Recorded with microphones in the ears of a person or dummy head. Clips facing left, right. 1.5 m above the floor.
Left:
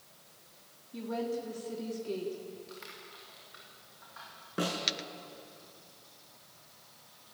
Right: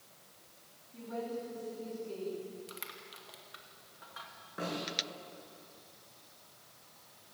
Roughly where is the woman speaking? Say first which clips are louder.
Left 5 dB; left.